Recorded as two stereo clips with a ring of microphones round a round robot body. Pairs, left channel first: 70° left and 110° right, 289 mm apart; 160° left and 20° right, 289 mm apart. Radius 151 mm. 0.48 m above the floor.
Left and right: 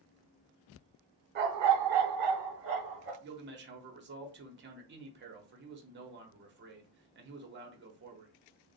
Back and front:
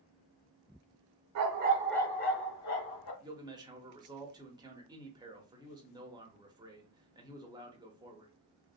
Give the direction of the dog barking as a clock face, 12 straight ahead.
2 o'clock.